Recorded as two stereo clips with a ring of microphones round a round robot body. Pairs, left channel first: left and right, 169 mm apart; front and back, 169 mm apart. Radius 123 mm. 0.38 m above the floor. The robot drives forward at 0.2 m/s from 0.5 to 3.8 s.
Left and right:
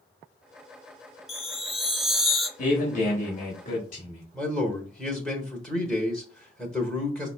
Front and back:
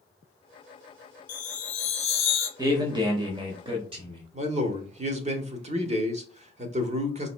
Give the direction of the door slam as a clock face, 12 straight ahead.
No door slam in this recording.